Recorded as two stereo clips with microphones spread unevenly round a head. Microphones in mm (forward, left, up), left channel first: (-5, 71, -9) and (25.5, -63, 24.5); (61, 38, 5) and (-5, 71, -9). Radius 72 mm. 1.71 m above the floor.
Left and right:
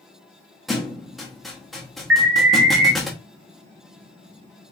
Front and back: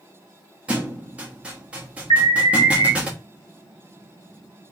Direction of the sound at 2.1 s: 90° right.